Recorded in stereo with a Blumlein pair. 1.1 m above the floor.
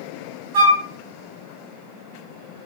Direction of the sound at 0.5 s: 60° right.